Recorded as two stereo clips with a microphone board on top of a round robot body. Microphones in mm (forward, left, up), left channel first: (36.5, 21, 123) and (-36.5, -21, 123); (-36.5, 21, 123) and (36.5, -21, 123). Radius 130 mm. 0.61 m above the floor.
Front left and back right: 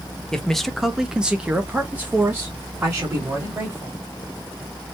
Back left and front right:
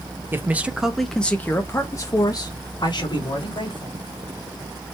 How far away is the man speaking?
About 0.9 m.